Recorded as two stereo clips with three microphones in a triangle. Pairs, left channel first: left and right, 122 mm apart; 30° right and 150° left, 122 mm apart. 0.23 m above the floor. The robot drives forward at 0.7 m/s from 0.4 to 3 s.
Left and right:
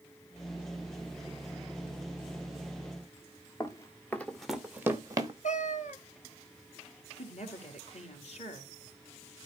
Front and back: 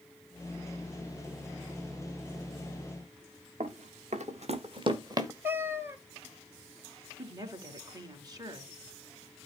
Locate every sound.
3.6 s running footsteps: 150° left, 1.5 m; by 5.3 s 145° right, 1.4 m
5.4 s a cat meowing: 80° left, 1.0 m
7.2 s a woman speaking: 95° left, 3 m